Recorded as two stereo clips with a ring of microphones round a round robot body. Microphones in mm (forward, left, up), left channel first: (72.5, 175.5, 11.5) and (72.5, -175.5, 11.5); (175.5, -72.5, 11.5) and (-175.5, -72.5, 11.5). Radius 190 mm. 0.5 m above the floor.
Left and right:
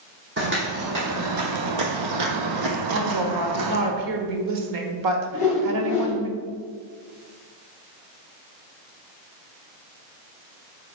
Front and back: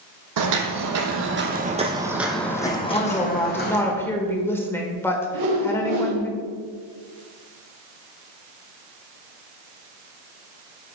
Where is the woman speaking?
85° right, 1.6 m.